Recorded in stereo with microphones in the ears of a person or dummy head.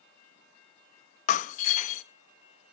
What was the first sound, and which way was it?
Breaking glass, 50° left (ahead or behind).